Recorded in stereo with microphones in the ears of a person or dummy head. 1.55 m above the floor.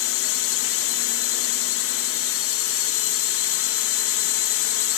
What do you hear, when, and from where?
0.0 s a drone: 65° left (ahead or behind)